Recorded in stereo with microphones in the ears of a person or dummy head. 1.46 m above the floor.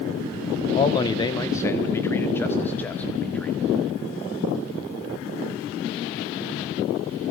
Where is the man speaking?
25° left (ahead or behind), 1.5 m; by 3.6 s 5° left (ahead or behind), 3 m.